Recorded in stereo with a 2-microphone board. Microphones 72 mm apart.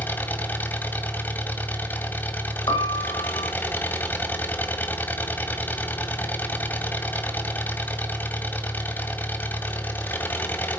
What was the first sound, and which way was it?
An engine running, 25° left (ahead or behind).